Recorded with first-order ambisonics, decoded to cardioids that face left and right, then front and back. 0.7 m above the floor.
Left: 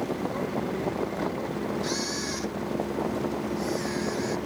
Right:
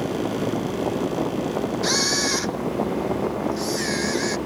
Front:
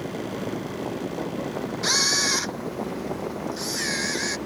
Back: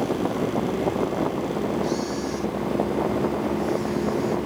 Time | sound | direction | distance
1.8 | a camera shutter | 35° right | ?